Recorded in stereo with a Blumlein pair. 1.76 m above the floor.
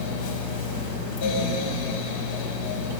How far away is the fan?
About 4 m.